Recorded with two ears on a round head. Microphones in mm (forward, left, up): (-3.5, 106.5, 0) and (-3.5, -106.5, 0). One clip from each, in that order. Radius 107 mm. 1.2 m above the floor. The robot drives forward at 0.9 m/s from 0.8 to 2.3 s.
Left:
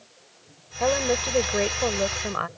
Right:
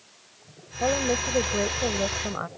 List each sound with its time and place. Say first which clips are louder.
0.8 s a woman speaking: left 2 dB; 80° left; by 2.5 s 65° left (ahead or behind)